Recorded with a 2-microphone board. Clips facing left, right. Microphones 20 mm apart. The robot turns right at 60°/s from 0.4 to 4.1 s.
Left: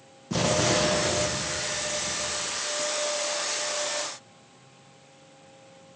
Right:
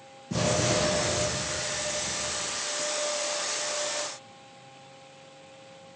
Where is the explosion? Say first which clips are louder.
Left 2 dB; 25° left, 3.5 m; by 2.6 s 160° left, 3.5 m.